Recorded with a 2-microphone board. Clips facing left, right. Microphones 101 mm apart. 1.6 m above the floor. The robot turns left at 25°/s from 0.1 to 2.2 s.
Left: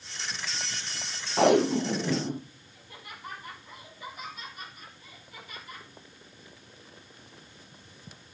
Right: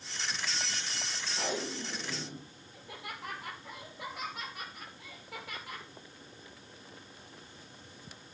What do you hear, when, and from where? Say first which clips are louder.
1.4 s tape being pulled: left 16 dB; 70° left (ahead or behind), 0.7 m; by 2.4 s 50° left (ahead or behind), 0.7 m
2.7 s laughter: right 4 dB; 85° right, 6 m